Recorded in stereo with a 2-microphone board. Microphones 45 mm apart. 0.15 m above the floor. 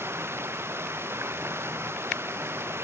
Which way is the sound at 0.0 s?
60° right (ahead or behind).